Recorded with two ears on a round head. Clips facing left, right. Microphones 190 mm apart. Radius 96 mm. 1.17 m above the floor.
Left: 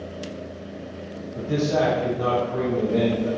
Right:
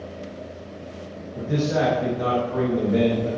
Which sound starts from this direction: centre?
A man speaking, at 1.4 s.